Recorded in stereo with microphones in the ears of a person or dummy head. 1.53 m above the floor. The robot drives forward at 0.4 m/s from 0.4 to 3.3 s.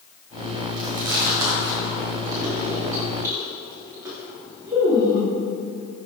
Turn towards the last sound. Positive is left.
turn(degrees=-15)  # may be behind; listen again after turning